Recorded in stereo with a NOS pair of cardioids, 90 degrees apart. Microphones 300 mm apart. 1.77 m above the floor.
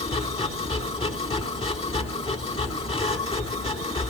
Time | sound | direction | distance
0.0 | a machine running | 15° left | 4 m